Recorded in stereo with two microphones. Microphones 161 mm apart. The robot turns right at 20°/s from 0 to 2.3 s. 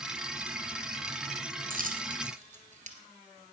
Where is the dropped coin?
60° right (ahead or behind), 2.0 m; by 3.0 s 50° right (ahead or behind), 2.0 m.